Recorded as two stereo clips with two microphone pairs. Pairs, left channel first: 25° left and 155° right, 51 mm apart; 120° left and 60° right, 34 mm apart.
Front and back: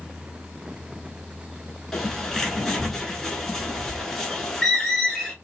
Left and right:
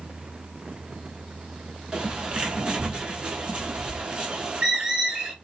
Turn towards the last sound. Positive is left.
turn(degrees=-50)